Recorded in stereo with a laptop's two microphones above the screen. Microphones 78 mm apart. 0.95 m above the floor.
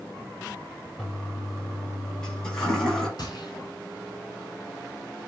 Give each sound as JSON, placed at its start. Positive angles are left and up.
{"t": 1.0, "sound": "a toilet flushing", "side_deg": 10, "distance_m": 4.5}
{"t": 3.2, "sound": "a gunshot", "side_deg": 55, "distance_m": 3.5}